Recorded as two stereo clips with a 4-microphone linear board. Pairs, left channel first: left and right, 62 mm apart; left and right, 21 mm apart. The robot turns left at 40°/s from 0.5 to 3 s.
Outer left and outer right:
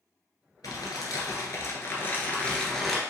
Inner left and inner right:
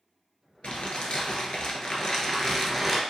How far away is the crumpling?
About 0.8 m.